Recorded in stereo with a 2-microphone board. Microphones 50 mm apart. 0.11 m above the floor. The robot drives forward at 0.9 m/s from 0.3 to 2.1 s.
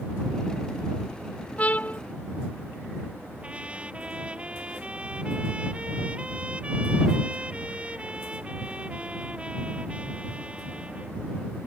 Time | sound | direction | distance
1.6 | a trumpet | 30° left (ahead or behind) | ?
3.4 | a trumpet | 25° right (ahead or behind) | ?